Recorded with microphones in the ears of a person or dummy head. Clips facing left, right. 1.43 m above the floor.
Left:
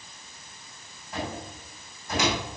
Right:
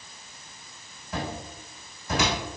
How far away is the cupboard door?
About 6 m.